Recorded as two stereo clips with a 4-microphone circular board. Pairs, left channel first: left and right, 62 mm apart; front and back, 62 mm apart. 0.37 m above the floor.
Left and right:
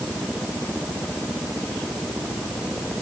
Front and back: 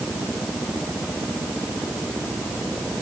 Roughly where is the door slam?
No door slam in this recording.